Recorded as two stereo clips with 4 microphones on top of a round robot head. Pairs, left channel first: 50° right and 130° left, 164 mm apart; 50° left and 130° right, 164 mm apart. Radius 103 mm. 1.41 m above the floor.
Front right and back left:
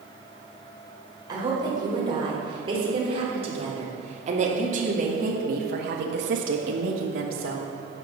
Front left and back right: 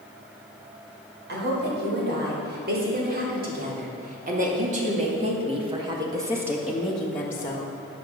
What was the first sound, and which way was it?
A woman speaking, 160° right.